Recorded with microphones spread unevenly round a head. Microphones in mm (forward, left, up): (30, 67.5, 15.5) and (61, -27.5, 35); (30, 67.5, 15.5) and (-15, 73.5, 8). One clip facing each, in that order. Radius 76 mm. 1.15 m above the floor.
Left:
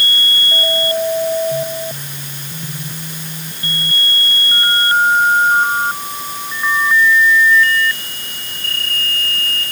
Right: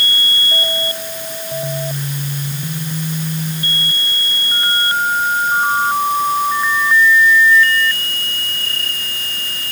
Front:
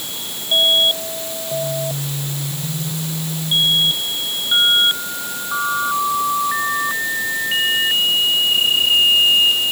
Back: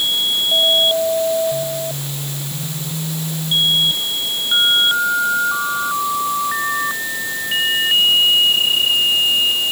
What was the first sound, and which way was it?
Only background noise.